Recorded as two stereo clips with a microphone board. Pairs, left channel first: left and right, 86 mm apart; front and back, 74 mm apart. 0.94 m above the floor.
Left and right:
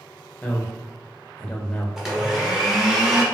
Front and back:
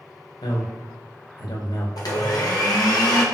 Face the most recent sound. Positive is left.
turn(degrees=-10)